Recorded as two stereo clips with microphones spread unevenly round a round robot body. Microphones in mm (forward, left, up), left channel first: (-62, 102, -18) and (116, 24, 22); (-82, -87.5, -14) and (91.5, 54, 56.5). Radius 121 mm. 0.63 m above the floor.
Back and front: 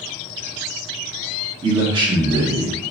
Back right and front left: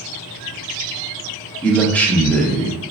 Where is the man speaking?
95° right, 0.6 m.